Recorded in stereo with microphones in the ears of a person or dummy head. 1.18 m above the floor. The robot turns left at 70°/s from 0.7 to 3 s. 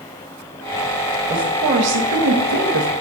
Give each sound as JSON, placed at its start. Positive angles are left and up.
{"t": 1.3, "sound": "a woman speaking", "azimuth_deg": -20, "distance_m": 1.5}